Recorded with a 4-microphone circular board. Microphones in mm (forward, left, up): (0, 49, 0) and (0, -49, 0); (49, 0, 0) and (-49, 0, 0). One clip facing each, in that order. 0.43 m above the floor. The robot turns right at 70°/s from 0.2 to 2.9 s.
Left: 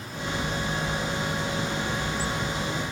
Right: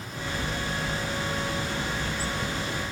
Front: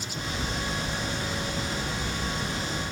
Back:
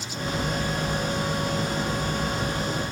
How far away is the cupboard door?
No cupboard door in this recording.